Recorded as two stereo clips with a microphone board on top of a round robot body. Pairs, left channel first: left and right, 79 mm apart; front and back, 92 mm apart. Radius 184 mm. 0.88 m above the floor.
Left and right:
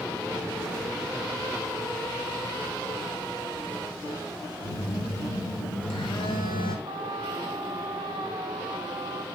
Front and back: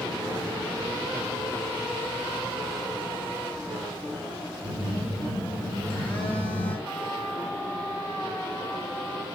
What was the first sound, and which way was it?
A phone buzzing, 75° left.